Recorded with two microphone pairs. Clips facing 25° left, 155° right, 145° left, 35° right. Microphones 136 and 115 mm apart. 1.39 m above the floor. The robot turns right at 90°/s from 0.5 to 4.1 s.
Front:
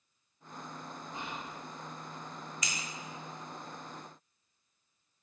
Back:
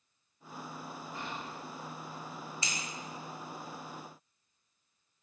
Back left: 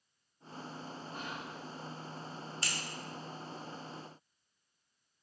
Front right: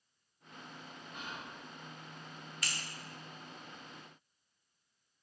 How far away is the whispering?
About 1.1 m.